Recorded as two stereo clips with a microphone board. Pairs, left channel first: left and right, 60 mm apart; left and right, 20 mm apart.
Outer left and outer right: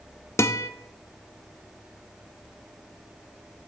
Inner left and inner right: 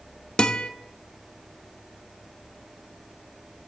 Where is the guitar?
45° left (ahead or behind), 0.6 m.